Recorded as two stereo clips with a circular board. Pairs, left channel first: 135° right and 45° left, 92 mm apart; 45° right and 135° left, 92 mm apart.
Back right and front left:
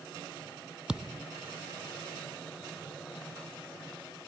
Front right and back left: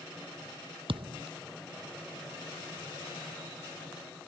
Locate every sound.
0.9 s a thud: 130° left